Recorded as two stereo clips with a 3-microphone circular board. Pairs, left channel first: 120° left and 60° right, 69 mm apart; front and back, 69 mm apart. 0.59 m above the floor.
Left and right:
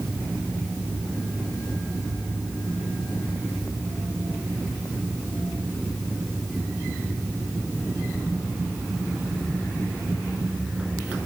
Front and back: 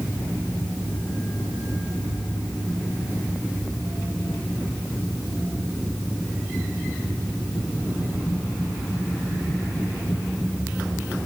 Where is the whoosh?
No whoosh in this recording.